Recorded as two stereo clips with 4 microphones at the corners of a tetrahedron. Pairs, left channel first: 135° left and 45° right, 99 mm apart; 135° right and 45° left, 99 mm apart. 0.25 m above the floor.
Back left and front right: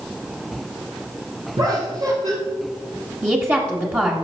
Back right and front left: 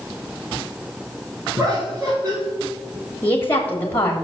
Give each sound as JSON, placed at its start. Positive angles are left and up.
{"t": 1.6, "sound": "laughter", "azimuth_deg": -15, "distance_m": 3.5}
{"t": 3.2, "sound": "a woman speaking", "azimuth_deg": -85, "distance_m": 1.2}